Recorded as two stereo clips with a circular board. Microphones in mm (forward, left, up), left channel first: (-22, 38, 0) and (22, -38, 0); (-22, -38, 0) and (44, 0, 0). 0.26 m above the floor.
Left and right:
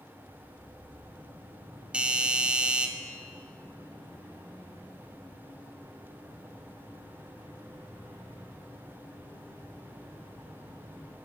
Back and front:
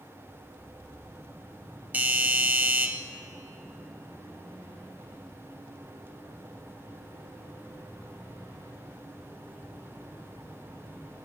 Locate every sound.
1.9 s a doorbell: straight ahead, 1.5 m